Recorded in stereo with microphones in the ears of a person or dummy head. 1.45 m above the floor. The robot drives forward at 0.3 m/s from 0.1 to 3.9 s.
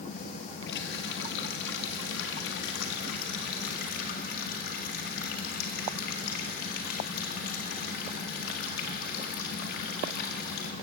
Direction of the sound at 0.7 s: 65° left (ahead or behind).